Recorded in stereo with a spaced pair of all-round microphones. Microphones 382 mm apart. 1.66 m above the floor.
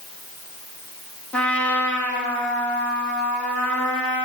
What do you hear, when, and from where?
1.3 s a trumpet: 5° left (ahead or behind), 1.5 m